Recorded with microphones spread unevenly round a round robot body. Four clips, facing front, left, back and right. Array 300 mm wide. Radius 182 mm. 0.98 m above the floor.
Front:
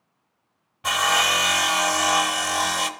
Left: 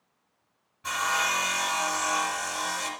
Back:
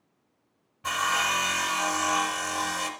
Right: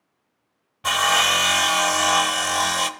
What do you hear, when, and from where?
0.8 s sawing: 60° right, 0.9 m